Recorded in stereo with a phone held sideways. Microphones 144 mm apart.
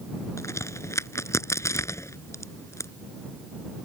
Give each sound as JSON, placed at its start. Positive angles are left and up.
{"t": 0.4, "sound": "a crack", "side_deg": 20}